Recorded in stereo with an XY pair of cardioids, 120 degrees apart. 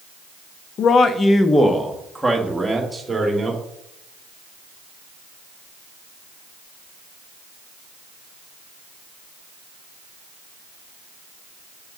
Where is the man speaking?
55° left, 0.6 m; by 3.6 s 10° right, 2.5 m.